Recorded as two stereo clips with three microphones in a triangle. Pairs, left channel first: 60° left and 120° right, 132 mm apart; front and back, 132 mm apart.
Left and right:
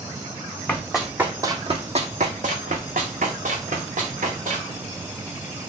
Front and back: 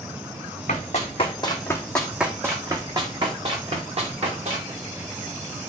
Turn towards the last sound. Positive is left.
turn(degrees=-145)